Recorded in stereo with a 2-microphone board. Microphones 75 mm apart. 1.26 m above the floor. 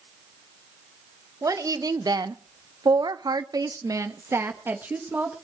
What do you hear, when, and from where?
1.4 s a woman speaking: 50° right (ahead or behind), 1.5 m; by 5.3 s 20° right (ahead or behind), 1.7 m